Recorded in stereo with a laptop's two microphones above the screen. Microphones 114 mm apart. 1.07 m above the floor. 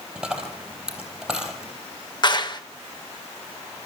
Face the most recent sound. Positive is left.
turn(degrees=40)  # may be behind; listen again after turning